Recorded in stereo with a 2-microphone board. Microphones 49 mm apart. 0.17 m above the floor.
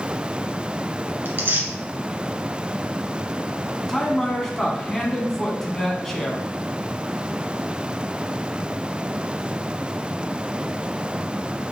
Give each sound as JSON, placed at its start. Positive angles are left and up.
{"t": 1.2, "sound": "tearing paper", "side_deg": -45, "distance_m": 1.1}
{"t": 3.9, "sound": "a man speaking", "side_deg": 10, "distance_m": 1.1}